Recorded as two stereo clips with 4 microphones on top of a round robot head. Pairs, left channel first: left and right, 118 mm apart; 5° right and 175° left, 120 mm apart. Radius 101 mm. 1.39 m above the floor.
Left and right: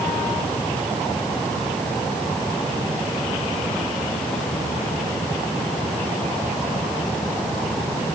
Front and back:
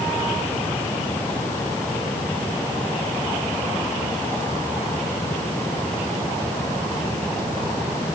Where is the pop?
No pop in this recording.